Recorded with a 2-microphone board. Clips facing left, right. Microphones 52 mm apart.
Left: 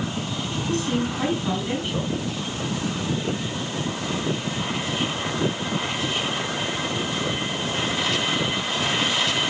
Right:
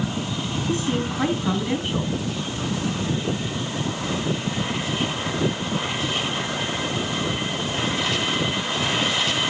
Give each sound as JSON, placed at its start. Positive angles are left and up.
{"t": 0.7, "sound": "a woman speaking", "side_deg": -10, "distance_m": 4.0}